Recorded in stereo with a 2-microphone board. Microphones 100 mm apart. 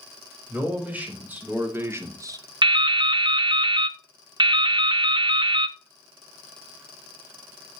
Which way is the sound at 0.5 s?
10° right (ahead or behind).